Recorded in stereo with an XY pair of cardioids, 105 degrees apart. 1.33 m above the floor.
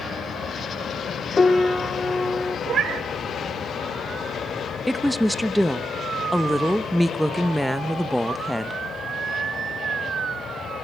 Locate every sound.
1.4 s a piano: 25° left, 1.0 m
2.7 s a cat meowing: 60° right, 2 m
4.9 s a woman speaking: straight ahead, 1.1 m